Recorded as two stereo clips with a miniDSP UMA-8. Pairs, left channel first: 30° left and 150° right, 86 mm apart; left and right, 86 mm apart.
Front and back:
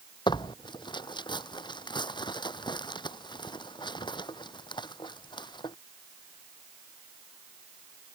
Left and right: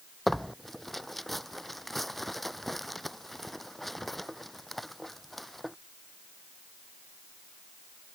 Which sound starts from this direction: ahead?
Tearing paper, at 0.3 s.